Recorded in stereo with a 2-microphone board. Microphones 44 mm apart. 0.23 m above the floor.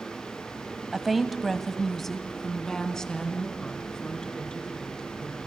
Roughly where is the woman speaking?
Centre.